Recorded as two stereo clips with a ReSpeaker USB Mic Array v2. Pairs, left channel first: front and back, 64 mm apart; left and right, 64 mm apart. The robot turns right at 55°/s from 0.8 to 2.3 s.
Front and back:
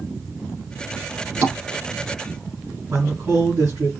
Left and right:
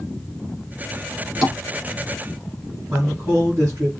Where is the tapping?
175° left, 2.5 m; by 1.6 s 175° right, 2.5 m.